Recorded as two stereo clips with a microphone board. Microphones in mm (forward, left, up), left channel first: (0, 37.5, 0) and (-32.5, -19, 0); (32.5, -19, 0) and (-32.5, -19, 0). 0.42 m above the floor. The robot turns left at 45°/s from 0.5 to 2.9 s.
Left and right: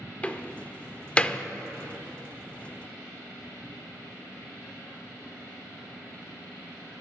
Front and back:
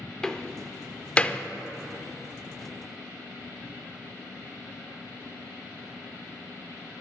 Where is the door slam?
60° left, 0.6 m; by 1.4 s 20° left, 0.6 m.